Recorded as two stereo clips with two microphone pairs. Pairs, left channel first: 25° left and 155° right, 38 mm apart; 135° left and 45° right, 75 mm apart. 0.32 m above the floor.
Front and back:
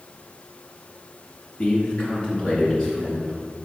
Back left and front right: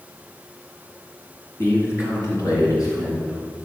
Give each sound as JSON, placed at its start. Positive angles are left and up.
{"t": 1.6, "sound": "a man speaking", "azimuth_deg": 85, "distance_m": 3.0}